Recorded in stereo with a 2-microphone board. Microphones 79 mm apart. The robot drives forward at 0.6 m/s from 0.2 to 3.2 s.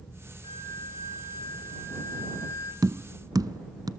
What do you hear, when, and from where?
0.4 s a flute: 75° left (ahead or behind), 1.3 m; by 2.7 s 40° left (ahead or behind), 2.0 m
2.8 s tapping: 50° right (ahead or behind), 0.5 m